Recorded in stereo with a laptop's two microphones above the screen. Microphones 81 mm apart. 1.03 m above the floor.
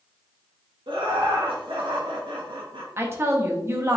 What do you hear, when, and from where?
0.9 s laughter: 85° right, 1.3 m
3.0 s a woman speaking: 30° right (ahead or behind), 0.8 m